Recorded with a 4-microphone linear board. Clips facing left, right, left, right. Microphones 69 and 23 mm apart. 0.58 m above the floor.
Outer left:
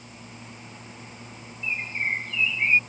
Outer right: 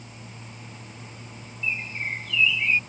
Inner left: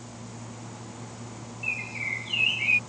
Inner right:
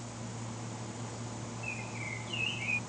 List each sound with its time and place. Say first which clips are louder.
1.6 s a bird: outer left 2 dB, inner left 11 dB; 35° left (ahead or behind)